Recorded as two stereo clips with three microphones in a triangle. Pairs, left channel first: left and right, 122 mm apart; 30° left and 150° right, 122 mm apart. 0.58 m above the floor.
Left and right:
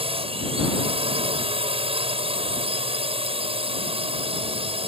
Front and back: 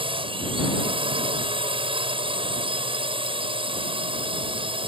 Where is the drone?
115° right.